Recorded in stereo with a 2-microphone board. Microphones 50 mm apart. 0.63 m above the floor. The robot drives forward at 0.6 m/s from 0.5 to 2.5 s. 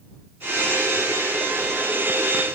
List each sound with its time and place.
Only background noise.